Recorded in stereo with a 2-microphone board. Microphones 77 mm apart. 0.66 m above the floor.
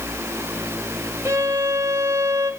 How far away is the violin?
About 2.0 m.